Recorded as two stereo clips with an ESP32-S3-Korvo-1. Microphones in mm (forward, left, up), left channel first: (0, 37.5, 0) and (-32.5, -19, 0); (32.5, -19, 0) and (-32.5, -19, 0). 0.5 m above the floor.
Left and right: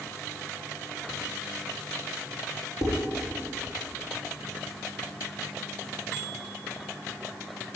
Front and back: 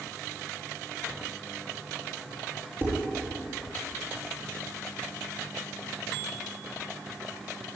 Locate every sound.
2.8 s dishes clattering: 125° right, 6.5 m